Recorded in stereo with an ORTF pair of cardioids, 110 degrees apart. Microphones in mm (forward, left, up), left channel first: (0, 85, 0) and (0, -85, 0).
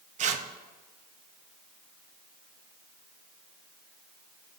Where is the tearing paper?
45° right, 0.6 m.